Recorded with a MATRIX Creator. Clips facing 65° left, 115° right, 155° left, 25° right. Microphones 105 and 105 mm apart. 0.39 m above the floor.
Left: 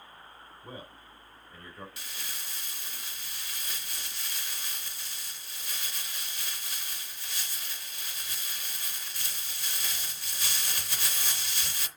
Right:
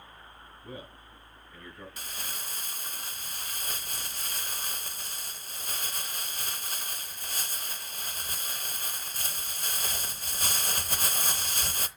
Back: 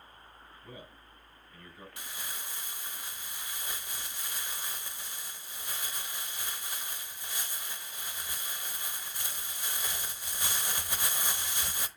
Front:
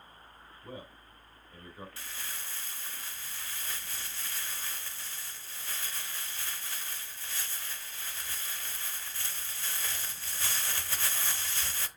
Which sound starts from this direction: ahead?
A man speaking, at 0.6 s.